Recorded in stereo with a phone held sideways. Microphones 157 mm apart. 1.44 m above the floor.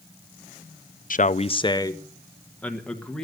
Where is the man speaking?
60° left (ahead or behind), 0.6 m; by 3.2 s 5° left (ahead or behind), 2 m.